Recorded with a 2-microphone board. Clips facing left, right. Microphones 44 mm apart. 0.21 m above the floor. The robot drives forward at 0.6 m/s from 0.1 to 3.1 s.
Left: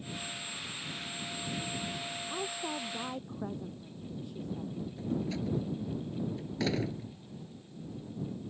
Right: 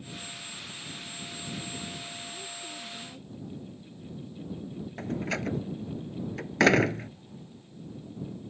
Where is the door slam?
70° right (ahead or behind).